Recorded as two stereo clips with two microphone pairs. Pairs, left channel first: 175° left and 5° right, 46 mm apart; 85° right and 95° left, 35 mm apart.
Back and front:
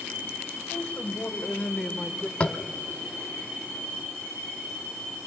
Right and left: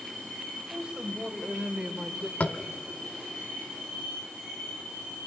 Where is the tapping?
125° right, 0.9 m.